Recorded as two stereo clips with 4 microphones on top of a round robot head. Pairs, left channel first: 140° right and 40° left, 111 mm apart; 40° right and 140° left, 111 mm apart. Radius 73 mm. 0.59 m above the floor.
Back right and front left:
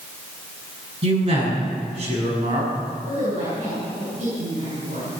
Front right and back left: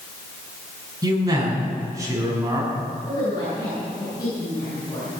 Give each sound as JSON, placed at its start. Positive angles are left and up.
{"t": 1.0, "sound": "a man speaking", "azimuth_deg": 80, "distance_m": 6.0}
{"t": 3.1, "sound": "a woman speaking", "azimuth_deg": 20, "distance_m": 8.0}